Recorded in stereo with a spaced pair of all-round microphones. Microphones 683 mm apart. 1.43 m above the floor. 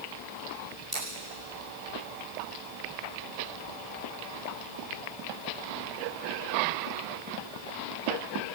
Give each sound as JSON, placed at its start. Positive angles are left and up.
{"t": 0.9, "sound": "scissors", "side_deg": -65, "distance_m": 9.5}